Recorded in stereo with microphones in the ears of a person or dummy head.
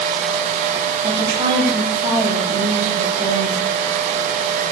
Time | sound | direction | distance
1.0 | a woman speaking | 15° right (ahead or behind) | 9.5 m